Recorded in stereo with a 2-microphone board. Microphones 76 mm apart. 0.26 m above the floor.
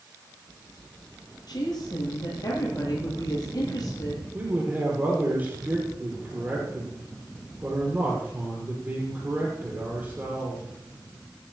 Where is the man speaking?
25° right (ahead or behind), 6 m.